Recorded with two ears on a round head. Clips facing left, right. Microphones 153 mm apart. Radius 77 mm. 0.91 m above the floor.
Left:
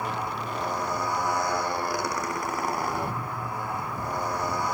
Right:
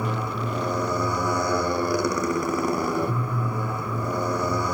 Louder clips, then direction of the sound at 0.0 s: Right 3 dB; 90° right.